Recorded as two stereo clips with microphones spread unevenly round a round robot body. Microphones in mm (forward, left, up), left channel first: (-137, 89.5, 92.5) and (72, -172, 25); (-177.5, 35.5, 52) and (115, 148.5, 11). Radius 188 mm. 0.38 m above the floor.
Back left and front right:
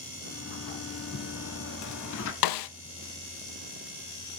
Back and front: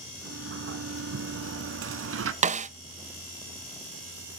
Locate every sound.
0.2 s a sliding door: 75° left, 0.8 m
2.4 s a snare drum: 90° left, 0.5 m